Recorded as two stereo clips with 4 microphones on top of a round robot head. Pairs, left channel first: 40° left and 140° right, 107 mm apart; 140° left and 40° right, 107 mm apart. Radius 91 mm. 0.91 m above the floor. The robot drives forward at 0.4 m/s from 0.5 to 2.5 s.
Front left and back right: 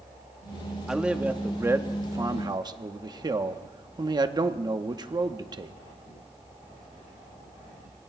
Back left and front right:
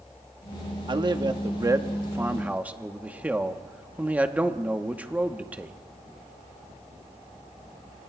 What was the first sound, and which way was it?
A man speaking, 55° right.